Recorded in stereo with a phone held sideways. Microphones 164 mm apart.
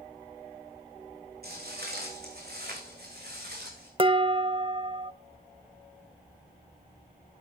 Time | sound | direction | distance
1.4 | footsteps | 75° right (ahead or behind) | 6 m
4.0 | dishes clattering | 35° right (ahead or behind) | 0.5 m